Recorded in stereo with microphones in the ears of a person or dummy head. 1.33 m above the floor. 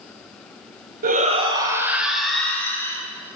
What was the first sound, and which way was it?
A shout, 50° right (ahead or behind).